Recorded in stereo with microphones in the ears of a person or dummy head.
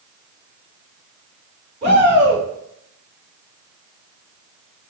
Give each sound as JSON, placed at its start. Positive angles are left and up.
{"t": 1.8, "sound": "a shout", "side_deg": -40, "distance_m": 4.0}